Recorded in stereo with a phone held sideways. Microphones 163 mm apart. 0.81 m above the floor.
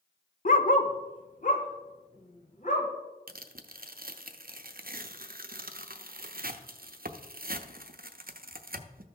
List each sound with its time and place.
0.5 s a dog barking: 55° left (ahead or behind), 0.6 m; by 2.9 s 50° left (ahead or behind), 2 m
3.3 s tearing paper: 65° right (ahead or behind), 0.7 m